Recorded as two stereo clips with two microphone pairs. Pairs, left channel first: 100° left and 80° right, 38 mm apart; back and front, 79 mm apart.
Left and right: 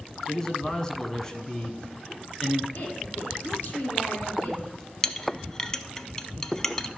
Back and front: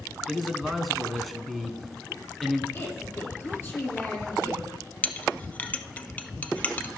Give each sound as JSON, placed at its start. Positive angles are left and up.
{"t": 0.3, "sound": "a man speaking", "azimuth_deg": 90, "distance_m": 1.0}
{"t": 2.7, "sound": "a woman speaking", "azimuth_deg": 125, "distance_m": 3.5}
{"t": 5.0, "sound": "a clink", "azimuth_deg": 145, "distance_m": 0.6}